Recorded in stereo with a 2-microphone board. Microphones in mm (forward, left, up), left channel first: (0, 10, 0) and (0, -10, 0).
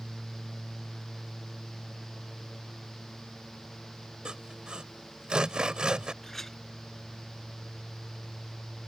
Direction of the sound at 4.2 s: 45° right (ahead or behind).